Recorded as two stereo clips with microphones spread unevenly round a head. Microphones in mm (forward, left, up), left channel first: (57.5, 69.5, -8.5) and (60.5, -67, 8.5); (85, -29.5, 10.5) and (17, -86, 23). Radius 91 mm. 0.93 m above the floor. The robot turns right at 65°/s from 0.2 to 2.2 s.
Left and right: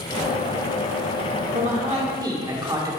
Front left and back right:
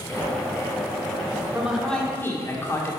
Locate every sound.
1.5 s a man speaking: 70° right, 2 m; by 2.9 s 25° right, 2 m